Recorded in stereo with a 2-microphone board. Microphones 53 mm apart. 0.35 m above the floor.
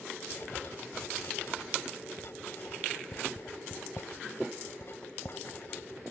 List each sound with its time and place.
0.3 s writing: 55° left (ahead or behind)